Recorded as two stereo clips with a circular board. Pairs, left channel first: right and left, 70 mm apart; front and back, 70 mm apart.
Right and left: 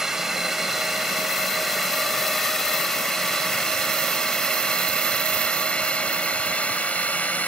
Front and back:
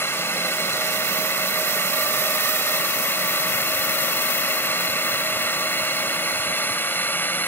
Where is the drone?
10° left; by 7.5 s 35° right.